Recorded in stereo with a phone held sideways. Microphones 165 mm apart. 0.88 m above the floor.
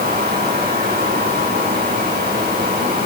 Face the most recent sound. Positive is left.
turn(degrees=-75)  # may be behind; listen again after turning